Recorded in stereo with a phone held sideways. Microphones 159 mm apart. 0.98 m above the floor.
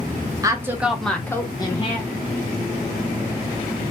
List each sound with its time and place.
0.4 s a woman speaking: 25° right (ahead or behind), 0.8 m; by 2.1 s 40° left (ahead or behind), 0.9 m